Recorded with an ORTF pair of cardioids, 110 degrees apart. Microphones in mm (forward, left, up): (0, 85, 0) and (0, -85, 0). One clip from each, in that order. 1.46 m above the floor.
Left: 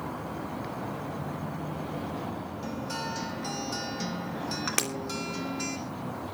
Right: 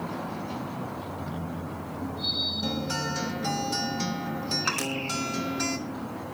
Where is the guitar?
20° right, 2 m.